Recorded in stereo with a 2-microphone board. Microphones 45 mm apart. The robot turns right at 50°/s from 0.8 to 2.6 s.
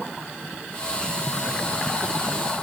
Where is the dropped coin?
I don't hear a dropped coin.